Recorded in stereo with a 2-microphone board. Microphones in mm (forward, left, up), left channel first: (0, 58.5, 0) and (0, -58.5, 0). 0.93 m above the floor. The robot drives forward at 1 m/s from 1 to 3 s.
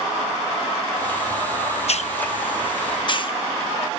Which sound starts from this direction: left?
A hiss, at 1.9 s.